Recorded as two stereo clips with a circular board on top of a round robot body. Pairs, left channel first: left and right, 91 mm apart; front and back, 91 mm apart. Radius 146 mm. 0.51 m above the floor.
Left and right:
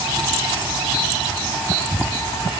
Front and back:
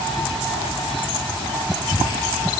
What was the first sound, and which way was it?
Only background noise.